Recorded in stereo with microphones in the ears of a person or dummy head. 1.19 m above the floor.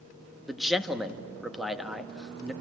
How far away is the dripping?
No dripping in this recording.